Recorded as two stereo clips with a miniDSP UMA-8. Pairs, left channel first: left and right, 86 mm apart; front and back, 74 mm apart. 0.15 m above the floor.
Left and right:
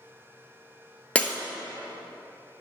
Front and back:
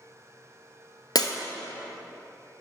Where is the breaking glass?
15° left, 0.9 m.